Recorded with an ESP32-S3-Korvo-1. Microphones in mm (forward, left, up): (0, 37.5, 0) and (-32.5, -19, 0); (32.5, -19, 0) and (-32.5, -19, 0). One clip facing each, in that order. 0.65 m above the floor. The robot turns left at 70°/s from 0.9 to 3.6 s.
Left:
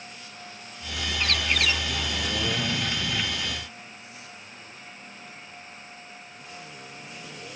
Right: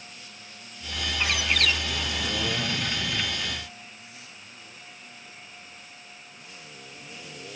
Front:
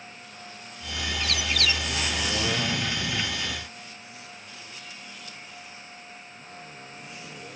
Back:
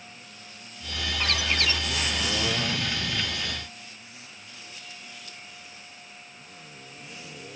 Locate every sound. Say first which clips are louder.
1.2 s a bird: even, back 2 dB; 175° left; by 1.8 s 130° left